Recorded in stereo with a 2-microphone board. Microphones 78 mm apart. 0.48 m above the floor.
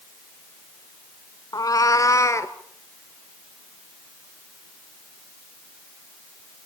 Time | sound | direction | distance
1.5 | a cat meowing | 60° left (ahead or behind) | 0.7 m